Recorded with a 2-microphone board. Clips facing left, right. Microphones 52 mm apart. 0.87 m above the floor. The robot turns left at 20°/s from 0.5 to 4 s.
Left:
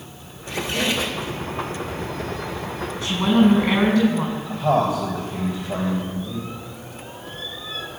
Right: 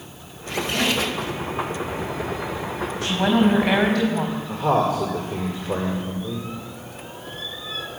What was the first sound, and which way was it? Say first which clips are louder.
A squeak: right 1 dB; 60° right (ahead or behind).